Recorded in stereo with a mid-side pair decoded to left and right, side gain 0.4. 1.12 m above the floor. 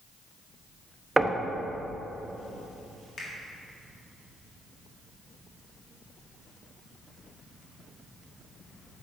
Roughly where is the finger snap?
Ahead left.